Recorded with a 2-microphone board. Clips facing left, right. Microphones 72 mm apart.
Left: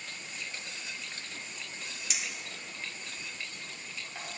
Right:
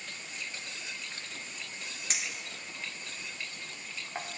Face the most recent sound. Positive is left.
turn(degrees=-40)  # may be behind; listen again after turning